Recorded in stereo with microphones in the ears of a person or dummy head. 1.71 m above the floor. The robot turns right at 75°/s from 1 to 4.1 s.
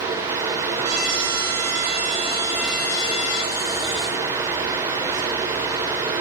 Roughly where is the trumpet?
Behind right.